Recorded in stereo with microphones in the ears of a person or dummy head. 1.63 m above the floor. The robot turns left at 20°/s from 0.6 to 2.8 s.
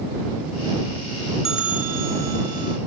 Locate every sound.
1.4 s a bell: 5° right (ahead or behind); by 2.8 s 30° right (ahead or behind)